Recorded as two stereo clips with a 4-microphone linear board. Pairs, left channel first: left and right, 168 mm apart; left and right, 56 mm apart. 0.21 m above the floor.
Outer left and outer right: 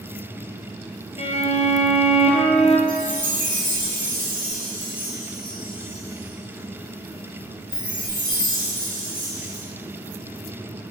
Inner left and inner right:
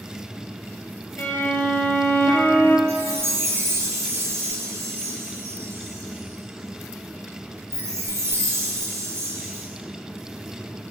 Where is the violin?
40° left (ahead or behind), 1.6 m.